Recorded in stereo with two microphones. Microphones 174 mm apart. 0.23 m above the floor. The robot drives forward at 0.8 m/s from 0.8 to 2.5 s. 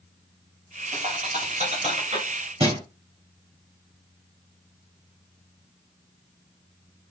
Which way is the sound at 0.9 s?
45° right (ahead or behind).